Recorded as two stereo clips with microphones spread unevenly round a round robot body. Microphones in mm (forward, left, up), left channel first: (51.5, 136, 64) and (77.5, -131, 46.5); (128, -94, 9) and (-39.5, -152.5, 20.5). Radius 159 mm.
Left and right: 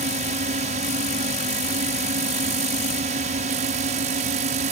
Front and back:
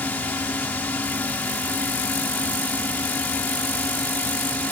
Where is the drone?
55° right.